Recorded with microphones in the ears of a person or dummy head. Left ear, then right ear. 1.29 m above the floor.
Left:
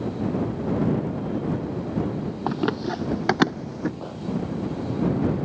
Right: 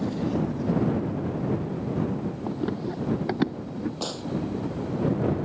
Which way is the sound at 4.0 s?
75° right (ahead or behind).